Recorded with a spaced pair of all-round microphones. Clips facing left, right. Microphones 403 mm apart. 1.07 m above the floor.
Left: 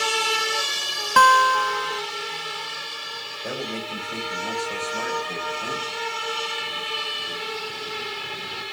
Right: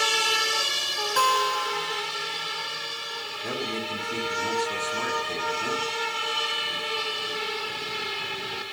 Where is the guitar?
75° left (ahead or behind), 0.6 m.